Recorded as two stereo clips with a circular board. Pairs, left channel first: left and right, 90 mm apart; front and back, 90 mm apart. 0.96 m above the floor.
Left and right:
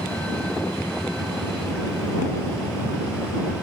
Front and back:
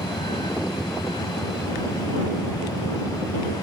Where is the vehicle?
15° left; by 3.6 s 10° right.